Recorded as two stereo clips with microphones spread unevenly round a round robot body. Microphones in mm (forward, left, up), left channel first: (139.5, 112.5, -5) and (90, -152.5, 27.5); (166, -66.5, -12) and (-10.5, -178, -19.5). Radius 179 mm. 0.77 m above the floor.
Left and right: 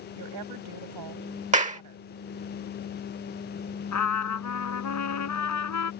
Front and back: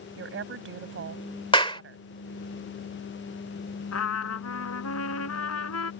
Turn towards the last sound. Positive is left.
turn(degrees=60)